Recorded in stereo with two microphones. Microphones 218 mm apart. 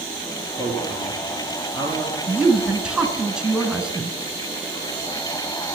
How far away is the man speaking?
About 2.5 m.